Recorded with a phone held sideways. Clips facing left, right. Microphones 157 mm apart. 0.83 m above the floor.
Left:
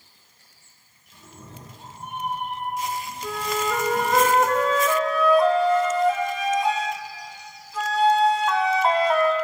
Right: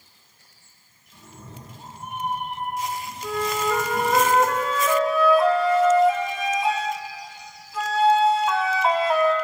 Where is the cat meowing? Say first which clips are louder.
Right 1 dB; 5° left (ahead or behind), 2 m; by 4.2 s centre (ahead or behind), 3.5 m.